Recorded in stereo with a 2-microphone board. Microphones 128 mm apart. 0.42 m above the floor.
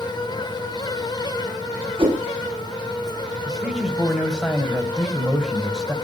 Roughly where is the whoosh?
Right.